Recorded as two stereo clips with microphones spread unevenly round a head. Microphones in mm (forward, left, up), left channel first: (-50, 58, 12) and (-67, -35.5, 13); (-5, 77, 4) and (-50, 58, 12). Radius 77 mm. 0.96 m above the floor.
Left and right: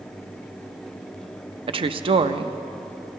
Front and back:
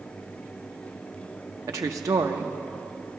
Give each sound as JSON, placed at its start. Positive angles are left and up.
{"t": 1.7, "sound": "a woman speaking", "azimuth_deg": -125, "distance_m": 0.6}